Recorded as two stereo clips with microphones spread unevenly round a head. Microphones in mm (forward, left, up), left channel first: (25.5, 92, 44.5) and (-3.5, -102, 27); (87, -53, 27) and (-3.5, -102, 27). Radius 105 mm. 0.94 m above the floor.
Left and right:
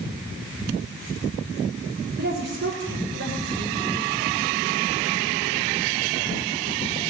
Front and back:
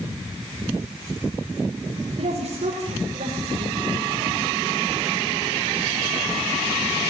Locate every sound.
2.2 s a woman speaking: 135° right, 2.5 m; by 3.9 s 130° right, 4 m